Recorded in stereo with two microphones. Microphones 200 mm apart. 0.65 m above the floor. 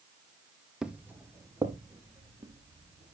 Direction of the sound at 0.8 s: 5° right (ahead or behind).